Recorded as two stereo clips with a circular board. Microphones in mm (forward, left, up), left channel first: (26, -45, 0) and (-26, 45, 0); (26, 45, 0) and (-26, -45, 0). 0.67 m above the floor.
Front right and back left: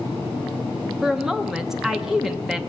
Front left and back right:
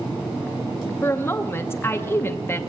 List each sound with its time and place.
1.0 s a woman speaking: 40° left, 0.8 m